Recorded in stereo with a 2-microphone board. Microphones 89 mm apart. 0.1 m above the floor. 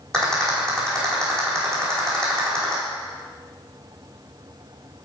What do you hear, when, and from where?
0.1 s a rattle: 5° left (ahead or behind), 4.5 m